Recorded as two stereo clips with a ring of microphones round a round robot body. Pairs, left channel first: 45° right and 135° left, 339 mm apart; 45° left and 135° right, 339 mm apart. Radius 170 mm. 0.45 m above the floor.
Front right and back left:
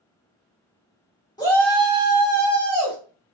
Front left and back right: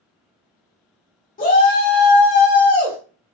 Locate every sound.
1.4 s a shout: 20° left, 1.2 m; by 3.0 s 170° left, 1.5 m